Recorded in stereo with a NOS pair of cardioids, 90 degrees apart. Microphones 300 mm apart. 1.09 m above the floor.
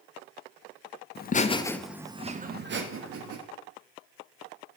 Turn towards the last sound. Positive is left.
turn(degrees=-50)